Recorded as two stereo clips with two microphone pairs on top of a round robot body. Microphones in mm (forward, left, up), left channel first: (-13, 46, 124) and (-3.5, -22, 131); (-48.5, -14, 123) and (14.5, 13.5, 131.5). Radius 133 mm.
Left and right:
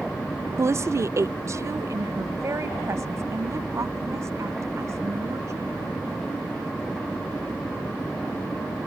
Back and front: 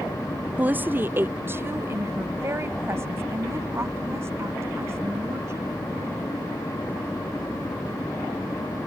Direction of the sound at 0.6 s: 40° right.